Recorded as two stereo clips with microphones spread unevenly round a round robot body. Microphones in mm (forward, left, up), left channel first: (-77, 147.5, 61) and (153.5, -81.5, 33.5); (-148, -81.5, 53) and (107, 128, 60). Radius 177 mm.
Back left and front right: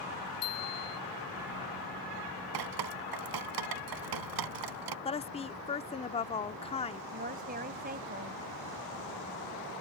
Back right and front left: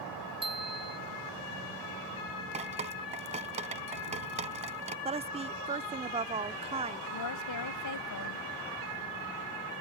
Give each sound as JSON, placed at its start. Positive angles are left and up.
{"t": 0.4, "sound": "a bicycle bell", "azimuth_deg": 115}
{"t": 2.5, "sound": "dripping", "azimuth_deg": -30}
{"t": 5.0, "sound": "a woman speaking", "azimuth_deg": 80}
{"t": 7.1, "sound": "a woman speaking", "azimuth_deg": -110}